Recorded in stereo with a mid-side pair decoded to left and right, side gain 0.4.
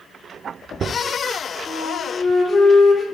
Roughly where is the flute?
Ahead left.